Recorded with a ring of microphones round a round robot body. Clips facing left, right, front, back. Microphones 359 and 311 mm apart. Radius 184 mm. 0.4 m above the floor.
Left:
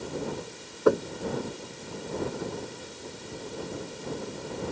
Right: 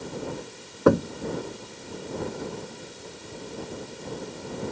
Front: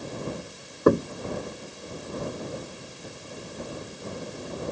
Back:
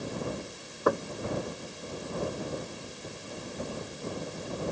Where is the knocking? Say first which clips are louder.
Right 3 dB, front 8 dB; 65° right.